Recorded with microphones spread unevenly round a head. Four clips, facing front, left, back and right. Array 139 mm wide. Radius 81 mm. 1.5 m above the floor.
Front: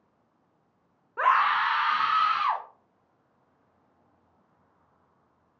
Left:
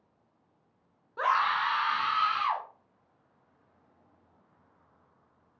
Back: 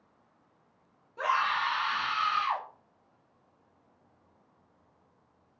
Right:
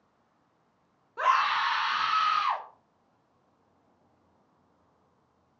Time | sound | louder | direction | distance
1.2 | a scream | right 2 dB, front 6 dB | 10° right | 0.5 m